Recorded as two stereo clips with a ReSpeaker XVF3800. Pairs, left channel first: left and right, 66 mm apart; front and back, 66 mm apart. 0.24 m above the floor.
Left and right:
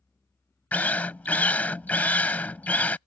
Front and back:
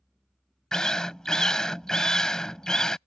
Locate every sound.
0.7 s a drill: 65° left